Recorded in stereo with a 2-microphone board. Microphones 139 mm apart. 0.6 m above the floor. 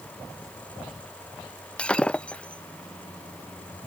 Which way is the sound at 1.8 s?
10° left (ahead or behind).